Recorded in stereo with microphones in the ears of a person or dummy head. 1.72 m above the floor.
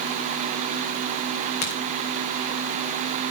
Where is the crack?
60° left (ahead or behind), 3 m.